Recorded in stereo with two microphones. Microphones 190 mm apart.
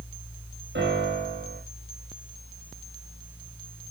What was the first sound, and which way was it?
A piano, 70° right (ahead or behind).